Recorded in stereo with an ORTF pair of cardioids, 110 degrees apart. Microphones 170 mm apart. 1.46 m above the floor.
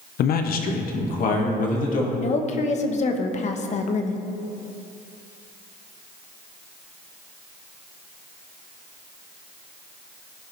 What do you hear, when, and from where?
0.2 s a man speaking: 65° left, 0.9 m; by 2.1 s 50° left, 2.5 m
2.2 s a woman speaking: 45° left, 1.2 m